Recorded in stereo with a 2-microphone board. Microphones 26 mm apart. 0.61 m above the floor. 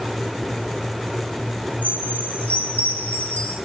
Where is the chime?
70° left (ahead or behind), 2.5 m.